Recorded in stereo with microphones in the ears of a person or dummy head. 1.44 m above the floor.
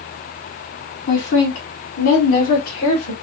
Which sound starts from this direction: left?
A woman speaking, at 1.1 s.